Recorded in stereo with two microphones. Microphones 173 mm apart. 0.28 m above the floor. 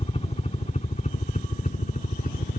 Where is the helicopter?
35° left (ahead or behind); by 2.6 s 50° left (ahead or behind).